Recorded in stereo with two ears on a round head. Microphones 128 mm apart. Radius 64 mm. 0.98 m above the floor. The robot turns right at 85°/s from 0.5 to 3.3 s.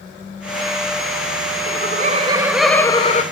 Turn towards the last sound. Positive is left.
turn(degrees=55)